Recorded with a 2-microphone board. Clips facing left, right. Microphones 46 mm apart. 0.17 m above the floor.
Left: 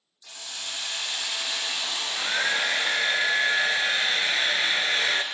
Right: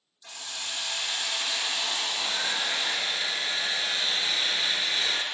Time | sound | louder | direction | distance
0.2 | a hiss | even | 30° right (ahead or behind) | 6 m
1.9 | a hair dryer | left 3 dB | 45° left (ahead or behind) | 0.9 m